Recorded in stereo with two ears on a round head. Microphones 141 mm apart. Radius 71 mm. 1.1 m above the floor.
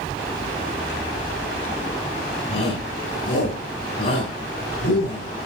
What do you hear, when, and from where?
2.5 s a shout: 50° left (ahead or behind), 10 m